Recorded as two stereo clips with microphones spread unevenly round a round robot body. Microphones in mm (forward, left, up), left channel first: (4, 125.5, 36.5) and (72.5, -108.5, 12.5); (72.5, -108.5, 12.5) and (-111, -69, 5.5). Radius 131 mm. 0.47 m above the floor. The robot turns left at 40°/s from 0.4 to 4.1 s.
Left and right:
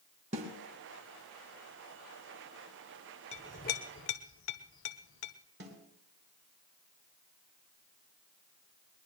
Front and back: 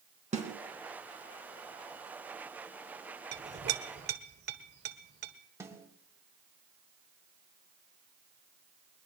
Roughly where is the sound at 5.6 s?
Behind right.